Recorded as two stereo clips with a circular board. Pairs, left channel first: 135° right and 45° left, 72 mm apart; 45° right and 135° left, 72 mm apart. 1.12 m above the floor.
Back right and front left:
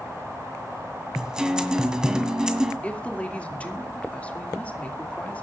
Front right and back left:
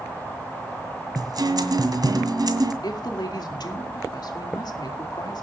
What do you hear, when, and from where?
1.1 s a guitar: 125° left, 1.9 m
2.8 s a woman speaking: 65° right, 2.5 m